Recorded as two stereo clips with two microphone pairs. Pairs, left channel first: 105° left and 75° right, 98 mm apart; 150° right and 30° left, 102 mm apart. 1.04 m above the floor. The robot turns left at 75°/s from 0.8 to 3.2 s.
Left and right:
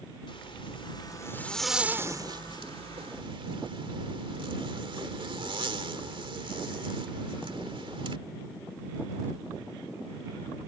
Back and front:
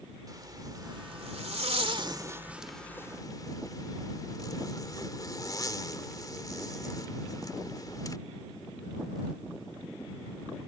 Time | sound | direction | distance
0.3 | a zipper | 80° left | ?